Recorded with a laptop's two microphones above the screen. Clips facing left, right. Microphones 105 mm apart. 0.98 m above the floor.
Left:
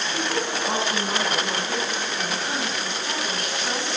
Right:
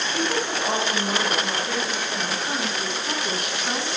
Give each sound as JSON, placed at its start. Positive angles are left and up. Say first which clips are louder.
{"t": 0.1, "sound": "a woman speaking", "louder": "right 1 dB", "side_deg": -15, "distance_m": 3.0}